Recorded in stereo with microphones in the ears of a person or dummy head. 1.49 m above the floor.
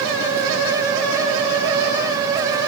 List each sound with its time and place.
Only background noise.